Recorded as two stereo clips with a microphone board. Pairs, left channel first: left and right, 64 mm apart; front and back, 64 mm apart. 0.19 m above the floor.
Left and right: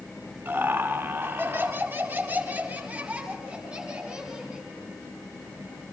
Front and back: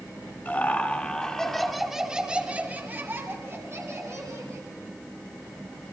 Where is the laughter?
50° right, 2.5 m; by 4.7 s 170° right, 3 m.